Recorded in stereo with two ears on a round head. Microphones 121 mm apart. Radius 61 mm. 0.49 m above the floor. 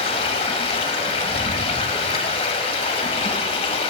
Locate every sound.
0.0 s running water: 45° left (ahead or behind), 1.3 m